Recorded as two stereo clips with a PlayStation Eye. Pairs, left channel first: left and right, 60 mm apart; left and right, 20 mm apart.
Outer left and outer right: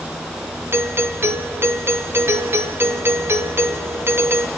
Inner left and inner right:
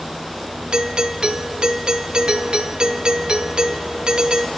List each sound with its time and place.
0.7 s a doorbell: 45° right (ahead or behind), 1.0 m